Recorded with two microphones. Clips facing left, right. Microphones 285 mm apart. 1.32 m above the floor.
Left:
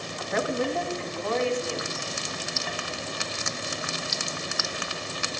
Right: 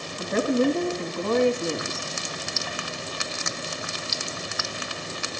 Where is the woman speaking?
35° right (ahead or behind), 2.5 m; by 2.1 s 55° right (ahead or behind), 3 m.